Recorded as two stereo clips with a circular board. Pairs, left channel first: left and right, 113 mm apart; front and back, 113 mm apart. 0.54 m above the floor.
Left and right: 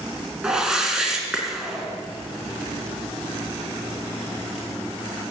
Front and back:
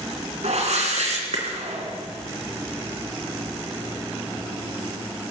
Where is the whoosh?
175° right, 3 m.